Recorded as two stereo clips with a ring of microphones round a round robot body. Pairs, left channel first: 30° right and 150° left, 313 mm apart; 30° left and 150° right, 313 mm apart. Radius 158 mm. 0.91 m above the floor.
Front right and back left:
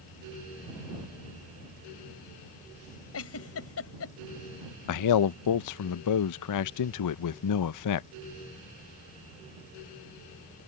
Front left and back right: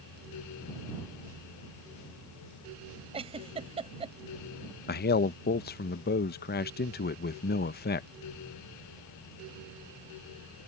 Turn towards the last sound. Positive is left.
turn(degrees=-25)